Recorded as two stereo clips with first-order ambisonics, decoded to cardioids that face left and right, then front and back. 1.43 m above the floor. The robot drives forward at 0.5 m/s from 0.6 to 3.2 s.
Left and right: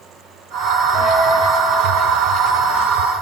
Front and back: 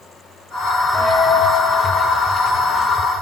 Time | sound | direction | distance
0.9 | a dropped coin | 45° left | 3 m